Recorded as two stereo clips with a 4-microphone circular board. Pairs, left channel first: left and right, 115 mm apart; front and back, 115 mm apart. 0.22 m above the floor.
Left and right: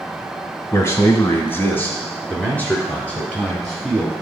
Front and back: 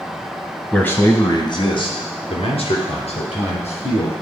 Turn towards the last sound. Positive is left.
turn(degrees=10)